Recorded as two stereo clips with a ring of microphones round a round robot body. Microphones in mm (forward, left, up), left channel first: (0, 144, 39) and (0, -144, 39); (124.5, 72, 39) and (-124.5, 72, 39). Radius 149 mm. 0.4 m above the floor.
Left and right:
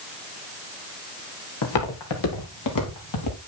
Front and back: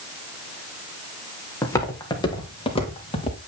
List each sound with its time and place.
1.6 s footsteps: 80° left, 4 m; by 3.4 s 65° left, 6 m